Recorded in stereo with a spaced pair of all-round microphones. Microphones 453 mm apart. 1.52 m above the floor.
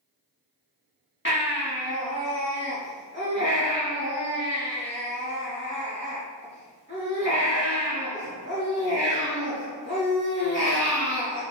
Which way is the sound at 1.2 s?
25° left (ahead or behind).